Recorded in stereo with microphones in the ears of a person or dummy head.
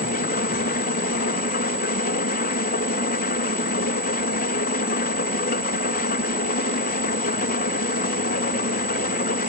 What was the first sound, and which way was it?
An engine running, 45° left (ahead or behind).